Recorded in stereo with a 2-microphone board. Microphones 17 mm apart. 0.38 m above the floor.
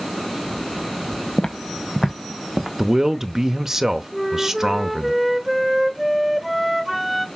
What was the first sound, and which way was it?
Footsteps, 45° left (ahead or behind).